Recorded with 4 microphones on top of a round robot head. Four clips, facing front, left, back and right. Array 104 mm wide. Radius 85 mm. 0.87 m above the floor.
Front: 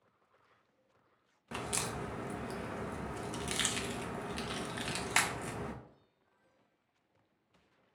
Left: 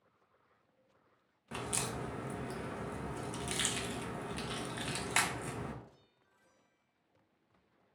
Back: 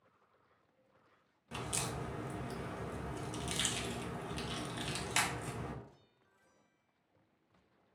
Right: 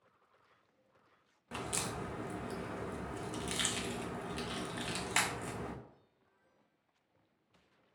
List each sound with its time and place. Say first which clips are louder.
1.5 s a crack: left 1 dB, front 2 dB; 10° left, 0.8 m